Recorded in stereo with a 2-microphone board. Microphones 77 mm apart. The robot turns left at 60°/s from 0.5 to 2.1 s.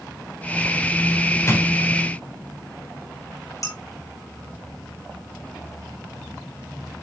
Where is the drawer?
35° left (ahead or behind), 3 m; by 1.6 s 25° left (ahead or behind), 3 m.